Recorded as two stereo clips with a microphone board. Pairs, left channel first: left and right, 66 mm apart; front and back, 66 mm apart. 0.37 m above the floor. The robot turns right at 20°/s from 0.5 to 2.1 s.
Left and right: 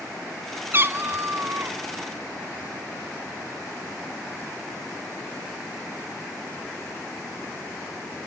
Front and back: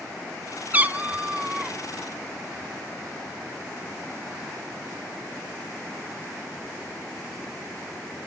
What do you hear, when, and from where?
0.7 s a cat meowing: 125° right, 0.6 m; by 1.8 s 105° right, 0.6 m